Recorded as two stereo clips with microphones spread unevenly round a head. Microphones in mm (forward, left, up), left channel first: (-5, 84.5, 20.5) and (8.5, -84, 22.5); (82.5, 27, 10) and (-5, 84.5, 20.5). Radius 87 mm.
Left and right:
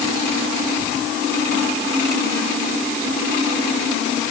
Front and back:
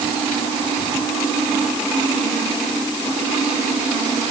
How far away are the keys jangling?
No keys jangling in this recording.